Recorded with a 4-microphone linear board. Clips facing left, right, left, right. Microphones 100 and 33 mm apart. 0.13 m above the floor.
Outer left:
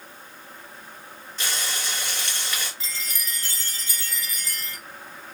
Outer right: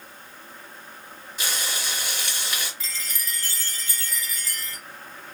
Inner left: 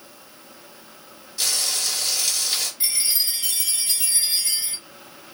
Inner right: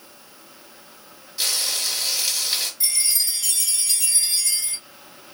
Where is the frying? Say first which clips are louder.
Even, even; 15° right (ahead or behind), 1.9 m.